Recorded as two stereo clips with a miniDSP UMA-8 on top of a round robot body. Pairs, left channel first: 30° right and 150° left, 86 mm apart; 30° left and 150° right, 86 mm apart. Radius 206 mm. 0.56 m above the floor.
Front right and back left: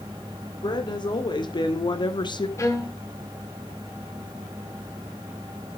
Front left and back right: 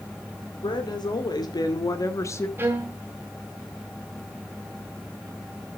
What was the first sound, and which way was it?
A woman speaking, straight ahead.